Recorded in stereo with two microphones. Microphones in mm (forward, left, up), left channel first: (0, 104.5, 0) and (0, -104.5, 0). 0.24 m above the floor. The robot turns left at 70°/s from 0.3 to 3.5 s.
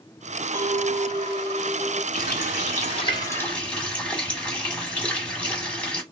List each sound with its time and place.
0.5 s a clink: 145° right, 0.6 m; by 2.0 s 110° left, 0.6 m
2.1 s a running tap: 105° left, 1.3 m; by 6.0 s 5° left, 1.3 m